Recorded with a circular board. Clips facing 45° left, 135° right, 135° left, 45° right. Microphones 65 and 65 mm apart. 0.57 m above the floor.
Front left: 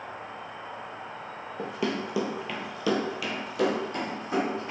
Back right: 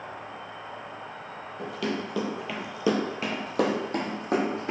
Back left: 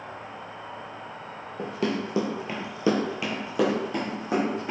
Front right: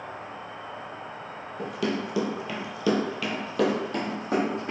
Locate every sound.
0.0 s an insect: 40° right, 0.7 m
1.6 s running footsteps: 95° left, 0.8 m; by 4.7 s 140° right, 1.3 m